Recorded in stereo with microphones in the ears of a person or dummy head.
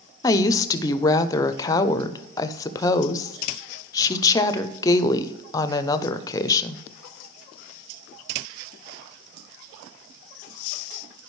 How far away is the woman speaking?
About 0.5 m.